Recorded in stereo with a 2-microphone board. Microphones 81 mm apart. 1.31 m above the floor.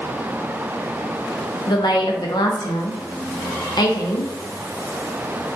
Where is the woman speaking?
65° left (ahead or behind), 0.5 m.